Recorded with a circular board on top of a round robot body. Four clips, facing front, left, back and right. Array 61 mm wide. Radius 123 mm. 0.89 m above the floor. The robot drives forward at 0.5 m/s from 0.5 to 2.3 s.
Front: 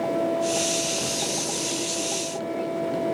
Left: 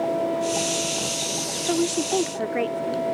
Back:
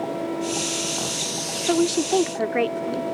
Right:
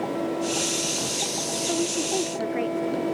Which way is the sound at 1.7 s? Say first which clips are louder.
Left 5 dB, back 9 dB; 160° left.